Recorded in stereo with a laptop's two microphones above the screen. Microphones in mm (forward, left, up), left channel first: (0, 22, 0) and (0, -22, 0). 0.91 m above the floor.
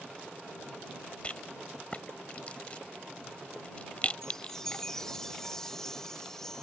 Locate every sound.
1.2 s a rattle: 30° left (ahead or behind)
4.2 s a chime: 15° left (ahead or behind)